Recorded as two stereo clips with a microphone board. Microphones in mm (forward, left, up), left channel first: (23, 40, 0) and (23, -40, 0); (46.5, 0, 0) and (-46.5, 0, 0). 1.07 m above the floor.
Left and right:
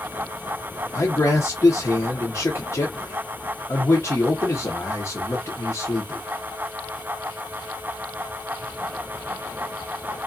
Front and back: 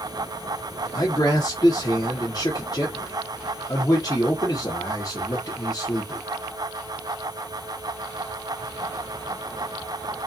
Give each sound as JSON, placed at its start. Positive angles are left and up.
{"t": 0.9, "sound": "a man speaking", "azimuth_deg": 40, "distance_m": 0.7}